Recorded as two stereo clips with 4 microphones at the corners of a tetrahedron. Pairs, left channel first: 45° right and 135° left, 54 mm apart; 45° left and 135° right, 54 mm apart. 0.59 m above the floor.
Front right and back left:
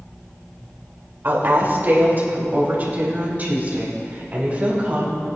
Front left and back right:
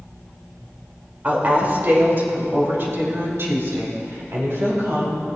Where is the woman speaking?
170° left, 2 m; by 5.2 s 165° right, 4.5 m.